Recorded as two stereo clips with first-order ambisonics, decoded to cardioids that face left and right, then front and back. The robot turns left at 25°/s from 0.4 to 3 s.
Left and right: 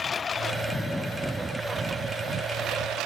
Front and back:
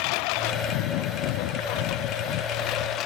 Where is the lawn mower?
20° left; by 3.1 s 45° right.